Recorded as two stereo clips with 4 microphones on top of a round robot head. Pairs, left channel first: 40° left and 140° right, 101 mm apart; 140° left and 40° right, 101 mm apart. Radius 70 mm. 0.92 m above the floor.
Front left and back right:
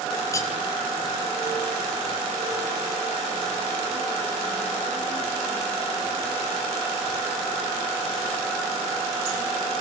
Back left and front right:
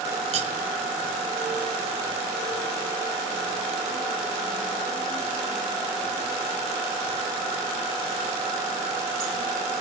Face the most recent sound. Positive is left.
turn(degrees=-25)